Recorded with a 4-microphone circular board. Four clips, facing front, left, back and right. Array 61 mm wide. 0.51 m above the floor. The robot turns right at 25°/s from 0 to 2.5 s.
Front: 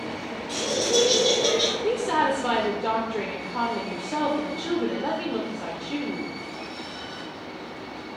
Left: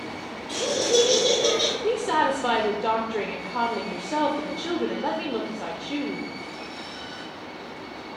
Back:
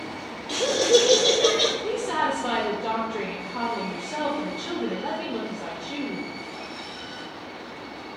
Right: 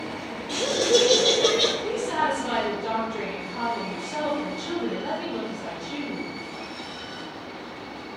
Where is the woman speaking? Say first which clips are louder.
Left 3 dB, front 2 dB; 65° left, 1.1 m; by 6.3 s 80° left, 1.1 m.